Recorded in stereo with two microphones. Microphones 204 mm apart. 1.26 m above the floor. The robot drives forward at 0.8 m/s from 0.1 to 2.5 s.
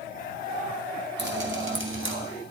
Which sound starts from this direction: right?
Dripping, at 1.2 s.